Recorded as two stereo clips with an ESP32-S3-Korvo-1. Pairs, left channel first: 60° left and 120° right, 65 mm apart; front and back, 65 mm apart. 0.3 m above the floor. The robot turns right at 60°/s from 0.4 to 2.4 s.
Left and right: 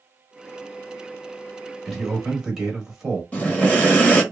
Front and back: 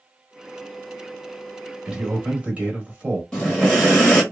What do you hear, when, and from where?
1.9 s a man speaking: 135° left, 1.3 m; by 3.2 s 165° left, 1.3 m
3.3 s breathing: 65° left, 1.2 m